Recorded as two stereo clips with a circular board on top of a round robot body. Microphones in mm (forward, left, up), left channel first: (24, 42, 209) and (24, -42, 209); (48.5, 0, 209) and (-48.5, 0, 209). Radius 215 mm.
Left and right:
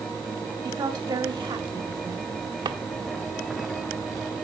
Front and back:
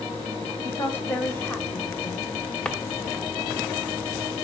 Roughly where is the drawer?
Right.